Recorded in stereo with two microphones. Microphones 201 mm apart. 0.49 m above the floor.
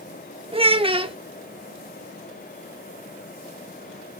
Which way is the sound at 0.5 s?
25° right (ahead or behind).